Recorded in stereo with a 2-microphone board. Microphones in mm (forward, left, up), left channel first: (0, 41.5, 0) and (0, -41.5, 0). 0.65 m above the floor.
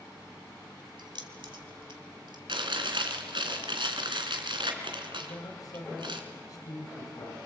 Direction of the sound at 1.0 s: 70° right (ahead or behind).